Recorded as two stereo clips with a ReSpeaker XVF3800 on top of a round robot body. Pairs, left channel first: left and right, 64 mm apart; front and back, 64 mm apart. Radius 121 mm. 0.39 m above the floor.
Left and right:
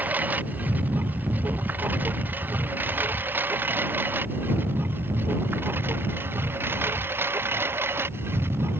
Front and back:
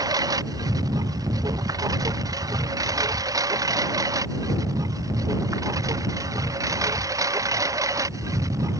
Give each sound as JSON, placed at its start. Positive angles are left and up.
{"t": 0.0, "sound": "a lawn mower", "azimuth_deg": -155}